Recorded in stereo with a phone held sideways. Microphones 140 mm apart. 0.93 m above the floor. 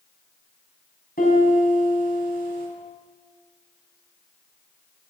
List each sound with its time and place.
1.2 s a piano: 85° left, 4 m